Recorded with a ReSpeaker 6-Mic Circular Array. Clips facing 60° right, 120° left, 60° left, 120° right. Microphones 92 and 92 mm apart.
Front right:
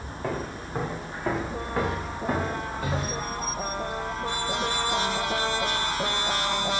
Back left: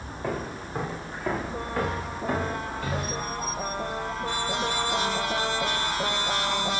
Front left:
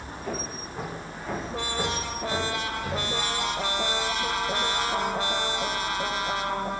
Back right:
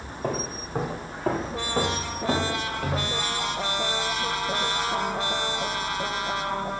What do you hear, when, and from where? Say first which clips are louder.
0.2 s footsteps: even, back right 5 dB; 150° right, 5 m; by 3.2 s 130° right, 5.5 m